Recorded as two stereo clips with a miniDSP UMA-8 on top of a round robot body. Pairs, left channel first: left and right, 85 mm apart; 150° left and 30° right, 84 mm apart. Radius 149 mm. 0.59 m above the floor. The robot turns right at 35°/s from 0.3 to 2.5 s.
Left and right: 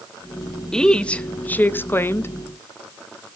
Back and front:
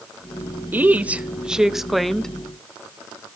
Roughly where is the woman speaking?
Ahead.